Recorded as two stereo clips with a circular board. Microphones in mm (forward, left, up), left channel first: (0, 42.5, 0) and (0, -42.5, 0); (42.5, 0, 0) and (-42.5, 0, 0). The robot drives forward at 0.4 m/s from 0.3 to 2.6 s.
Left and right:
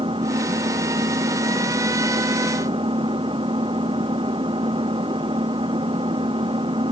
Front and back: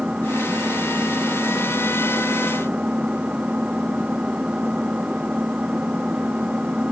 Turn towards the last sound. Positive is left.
turn(degrees=-105)